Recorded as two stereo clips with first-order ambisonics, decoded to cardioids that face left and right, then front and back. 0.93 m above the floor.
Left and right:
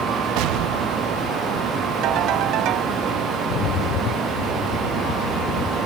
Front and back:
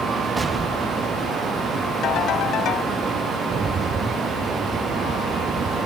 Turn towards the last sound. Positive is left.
turn(degrees=110)